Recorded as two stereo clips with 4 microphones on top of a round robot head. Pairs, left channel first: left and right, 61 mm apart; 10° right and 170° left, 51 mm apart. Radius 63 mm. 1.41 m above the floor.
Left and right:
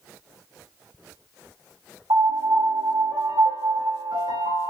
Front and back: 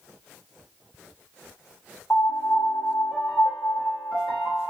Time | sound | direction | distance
2.1 | a piano | 85° right | 1.4 m